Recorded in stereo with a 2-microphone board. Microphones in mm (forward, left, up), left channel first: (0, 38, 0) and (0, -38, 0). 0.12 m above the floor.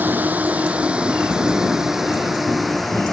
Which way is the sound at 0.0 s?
20° right (ahead or behind).